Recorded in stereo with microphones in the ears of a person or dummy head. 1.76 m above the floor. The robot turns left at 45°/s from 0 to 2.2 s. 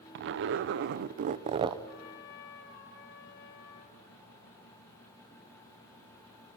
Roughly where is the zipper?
Right.